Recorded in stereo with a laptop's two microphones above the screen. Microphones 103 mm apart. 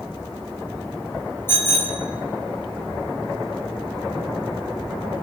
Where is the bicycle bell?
25° left (ahead or behind), 3 m.